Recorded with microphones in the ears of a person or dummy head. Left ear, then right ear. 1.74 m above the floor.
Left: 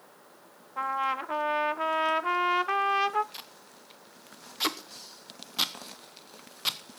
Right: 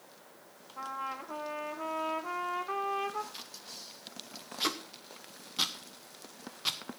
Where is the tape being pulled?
20° left (ahead or behind), 1.0 m.